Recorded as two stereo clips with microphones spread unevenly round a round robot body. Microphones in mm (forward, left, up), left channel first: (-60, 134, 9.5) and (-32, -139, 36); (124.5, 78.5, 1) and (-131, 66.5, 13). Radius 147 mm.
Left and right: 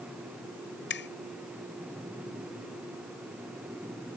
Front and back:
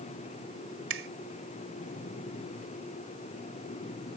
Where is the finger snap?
145° left.